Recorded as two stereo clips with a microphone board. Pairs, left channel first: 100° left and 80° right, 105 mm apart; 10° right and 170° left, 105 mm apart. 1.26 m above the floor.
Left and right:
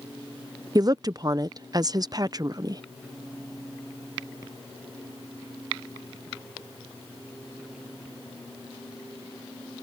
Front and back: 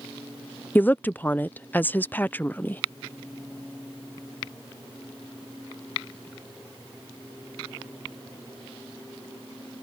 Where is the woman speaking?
75° right.